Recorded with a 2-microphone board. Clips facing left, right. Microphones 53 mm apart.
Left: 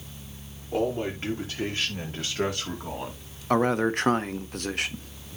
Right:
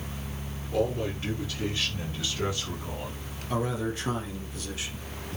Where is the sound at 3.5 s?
50° left (ahead or behind), 1.3 m.